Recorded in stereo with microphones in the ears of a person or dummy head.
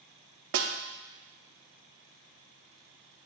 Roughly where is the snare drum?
Right.